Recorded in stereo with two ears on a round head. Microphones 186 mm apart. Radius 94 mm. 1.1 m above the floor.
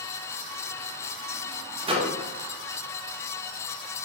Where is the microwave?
25° right (ahead or behind), 0.5 m.